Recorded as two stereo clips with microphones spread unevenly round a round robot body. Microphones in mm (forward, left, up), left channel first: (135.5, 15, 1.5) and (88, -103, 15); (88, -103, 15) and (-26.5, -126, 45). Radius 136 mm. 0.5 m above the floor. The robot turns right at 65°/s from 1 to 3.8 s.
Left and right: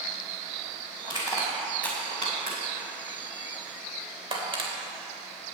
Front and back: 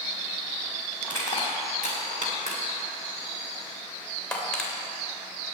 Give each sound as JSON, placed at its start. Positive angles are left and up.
{"t": 1.0, "sound": "crushing", "azimuth_deg": 115, "distance_m": 2.5}